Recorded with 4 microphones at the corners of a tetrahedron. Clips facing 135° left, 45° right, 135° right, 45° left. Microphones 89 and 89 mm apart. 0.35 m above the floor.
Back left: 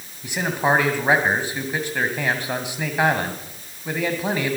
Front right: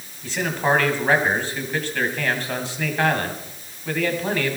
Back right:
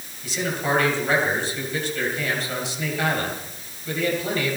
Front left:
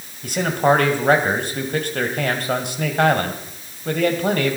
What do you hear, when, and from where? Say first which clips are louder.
0.2 s a man speaking: back left 1 dB, front left 8 dB; 60° left, 2 m